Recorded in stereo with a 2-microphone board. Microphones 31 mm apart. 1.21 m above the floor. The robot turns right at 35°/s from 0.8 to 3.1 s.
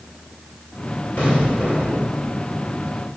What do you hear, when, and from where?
1.2 s an explosion: 70° left, 4.5 m; by 2.2 s 105° left, 4.5 m